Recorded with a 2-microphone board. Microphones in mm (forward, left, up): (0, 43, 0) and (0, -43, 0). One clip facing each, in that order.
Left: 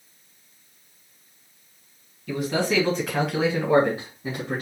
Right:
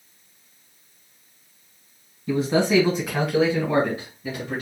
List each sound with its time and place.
2.3 s a man speaking: 30° right (ahead or behind), 1.8 m; by 4.6 s 40° left (ahead or behind), 2 m